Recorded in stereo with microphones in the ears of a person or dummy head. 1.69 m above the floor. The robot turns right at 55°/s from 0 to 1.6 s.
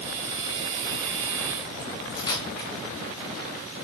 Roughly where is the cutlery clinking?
Left.